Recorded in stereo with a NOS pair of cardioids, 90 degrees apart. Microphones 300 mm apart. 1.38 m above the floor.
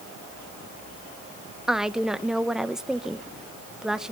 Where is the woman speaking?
Straight ahead, 1.1 m.